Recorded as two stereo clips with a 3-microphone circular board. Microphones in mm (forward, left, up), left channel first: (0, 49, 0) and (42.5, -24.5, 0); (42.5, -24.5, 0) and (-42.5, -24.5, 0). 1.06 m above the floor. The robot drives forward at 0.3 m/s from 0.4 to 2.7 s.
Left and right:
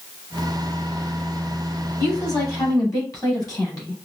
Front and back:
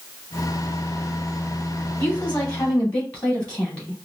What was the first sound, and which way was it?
A woman speaking, 70° left.